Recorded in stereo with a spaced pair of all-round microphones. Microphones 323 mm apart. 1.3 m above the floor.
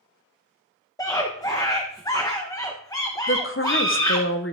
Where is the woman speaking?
40° left (ahead or behind), 0.9 m.